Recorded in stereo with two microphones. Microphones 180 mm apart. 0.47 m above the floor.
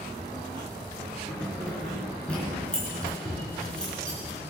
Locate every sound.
1.3 s keys jangling: 5° left (ahead or behind), 4 m